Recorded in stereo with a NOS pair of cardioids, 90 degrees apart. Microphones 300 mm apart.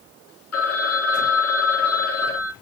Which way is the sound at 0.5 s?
55° left.